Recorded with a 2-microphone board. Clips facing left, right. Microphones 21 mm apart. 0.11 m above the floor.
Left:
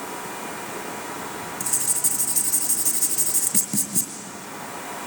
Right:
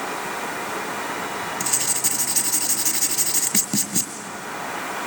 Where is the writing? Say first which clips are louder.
Right 1 dB; 40° right (ahead or behind), 1.8 m.